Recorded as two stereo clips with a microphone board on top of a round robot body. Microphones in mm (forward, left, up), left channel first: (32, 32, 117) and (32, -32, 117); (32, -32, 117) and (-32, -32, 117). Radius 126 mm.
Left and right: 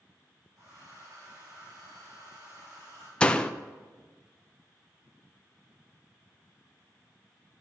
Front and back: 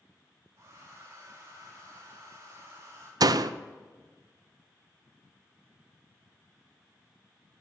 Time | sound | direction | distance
0.6 | a hair dryer | 130° right | 5.5 m
3.2 | a door slam | 165° left | 0.5 m